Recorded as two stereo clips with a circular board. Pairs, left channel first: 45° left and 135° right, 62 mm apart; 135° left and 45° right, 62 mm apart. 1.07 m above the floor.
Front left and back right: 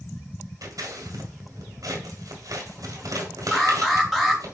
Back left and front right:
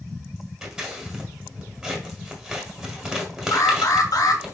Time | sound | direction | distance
0.6 | scissors | 120° right | 1.7 m
3.5 | an alarm | 135° left | 1.8 m